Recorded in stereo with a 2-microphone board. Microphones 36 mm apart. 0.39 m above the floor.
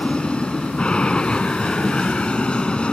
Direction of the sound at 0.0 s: 30° left (ahead or behind).